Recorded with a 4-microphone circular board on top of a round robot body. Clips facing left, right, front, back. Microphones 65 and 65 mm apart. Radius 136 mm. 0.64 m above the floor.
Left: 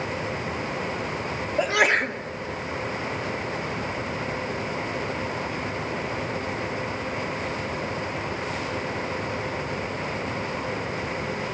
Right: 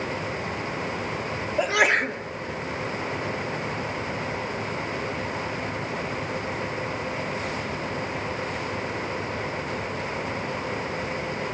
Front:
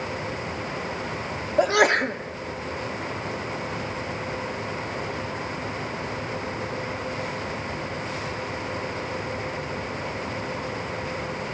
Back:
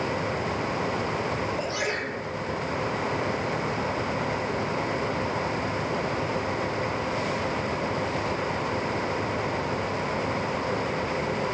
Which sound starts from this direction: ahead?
A sneeze, at 1.6 s.